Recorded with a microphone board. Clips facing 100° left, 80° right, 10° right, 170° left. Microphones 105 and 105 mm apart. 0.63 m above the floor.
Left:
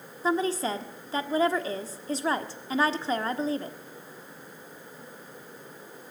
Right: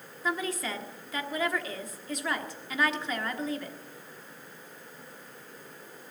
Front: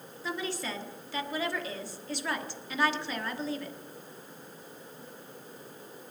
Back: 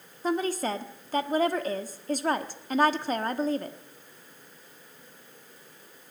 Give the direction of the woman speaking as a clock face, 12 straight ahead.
7 o'clock.